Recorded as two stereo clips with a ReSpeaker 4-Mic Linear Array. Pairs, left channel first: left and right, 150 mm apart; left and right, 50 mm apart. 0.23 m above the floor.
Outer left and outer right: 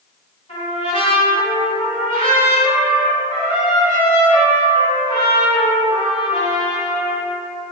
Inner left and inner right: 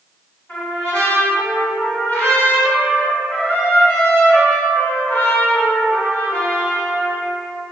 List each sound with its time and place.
0.5 s a trumpet: 35° left (ahead or behind), 1.6 m